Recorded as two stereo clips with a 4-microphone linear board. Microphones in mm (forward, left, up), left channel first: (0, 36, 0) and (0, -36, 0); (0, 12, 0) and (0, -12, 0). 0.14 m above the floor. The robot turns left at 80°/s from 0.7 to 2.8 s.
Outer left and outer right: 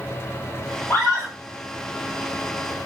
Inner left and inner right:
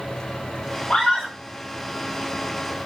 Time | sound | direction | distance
0.9 | a scream | 40° left | 5 m